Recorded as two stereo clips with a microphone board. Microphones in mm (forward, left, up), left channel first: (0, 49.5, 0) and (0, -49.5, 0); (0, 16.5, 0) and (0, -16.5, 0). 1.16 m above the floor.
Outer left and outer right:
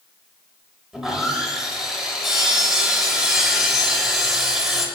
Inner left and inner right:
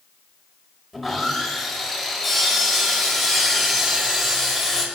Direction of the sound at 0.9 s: 5° right (ahead or behind).